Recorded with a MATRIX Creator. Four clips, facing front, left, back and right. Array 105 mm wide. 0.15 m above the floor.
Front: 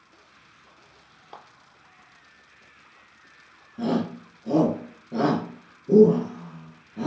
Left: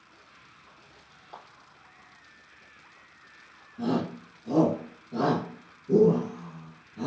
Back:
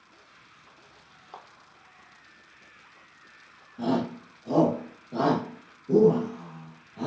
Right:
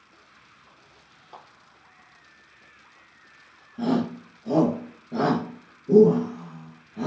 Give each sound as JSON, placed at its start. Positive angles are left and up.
{"t": 1.3, "sound": "a clap", "azimuth_deg": 0, "distance_m": 2.5}
{"t": 3.8, "sound": "a shout", "azimuth_deg": -40, "distance_m": 2.5}